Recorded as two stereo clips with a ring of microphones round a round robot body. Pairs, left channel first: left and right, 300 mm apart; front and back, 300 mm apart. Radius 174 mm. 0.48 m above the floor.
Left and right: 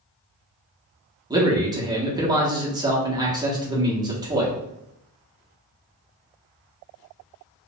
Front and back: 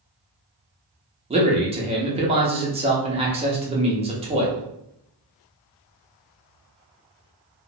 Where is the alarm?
No alarm in this recording.